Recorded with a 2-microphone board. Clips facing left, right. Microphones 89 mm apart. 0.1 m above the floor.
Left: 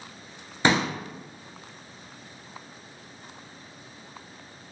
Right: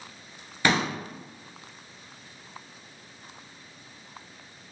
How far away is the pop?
About 0.7 m.